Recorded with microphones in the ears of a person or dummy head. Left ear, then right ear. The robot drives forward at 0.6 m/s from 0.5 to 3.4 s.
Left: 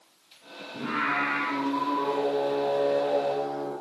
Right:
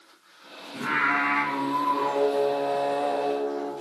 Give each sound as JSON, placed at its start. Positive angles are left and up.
{"t": 0.7, "sound": "singing", "side_deg": -80, "distance_m": 5.0}